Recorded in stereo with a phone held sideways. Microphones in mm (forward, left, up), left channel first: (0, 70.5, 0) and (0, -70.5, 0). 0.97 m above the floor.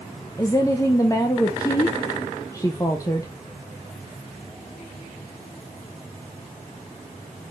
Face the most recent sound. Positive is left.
turn(degrees=25)  # may be behind; listen again after turning